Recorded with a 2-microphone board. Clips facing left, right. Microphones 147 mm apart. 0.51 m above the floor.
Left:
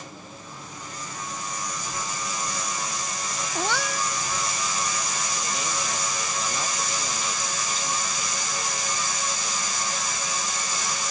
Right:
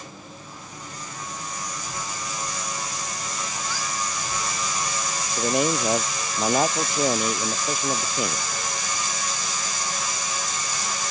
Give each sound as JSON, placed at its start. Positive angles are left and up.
{"t": 3.5, "sound": "a cat meowing", "side_deg": 75}
{"t": 5.4, "sound": "a man speaking", "side_deg": -60}